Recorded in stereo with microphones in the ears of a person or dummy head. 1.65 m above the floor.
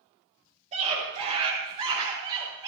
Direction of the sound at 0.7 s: 40° right (ahead or behind).